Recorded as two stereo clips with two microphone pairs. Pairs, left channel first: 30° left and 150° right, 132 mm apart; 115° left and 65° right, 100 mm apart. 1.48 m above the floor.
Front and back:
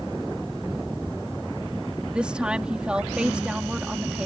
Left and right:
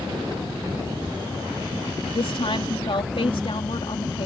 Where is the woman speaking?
130° left.